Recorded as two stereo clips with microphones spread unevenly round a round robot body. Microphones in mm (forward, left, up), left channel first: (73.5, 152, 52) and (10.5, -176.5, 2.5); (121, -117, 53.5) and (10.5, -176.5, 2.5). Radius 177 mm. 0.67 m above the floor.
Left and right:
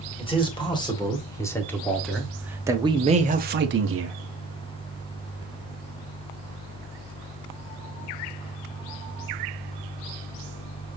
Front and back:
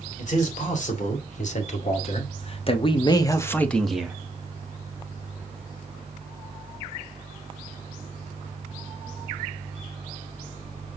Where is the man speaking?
5° left, 2.5 m; by 4.2 s 100° right, 1.0 m.